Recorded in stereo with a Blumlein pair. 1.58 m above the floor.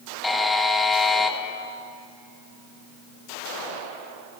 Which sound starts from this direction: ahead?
A buzzer, at 0.2 s.